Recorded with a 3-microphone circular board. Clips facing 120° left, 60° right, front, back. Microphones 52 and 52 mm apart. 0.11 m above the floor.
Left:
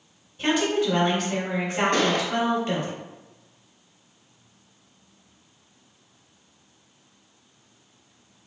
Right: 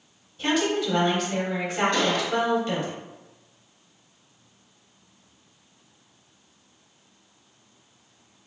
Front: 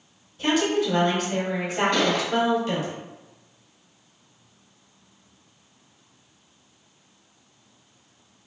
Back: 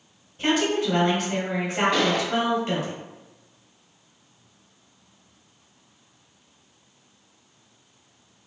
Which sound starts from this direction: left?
A gunshot, at 1.9 s.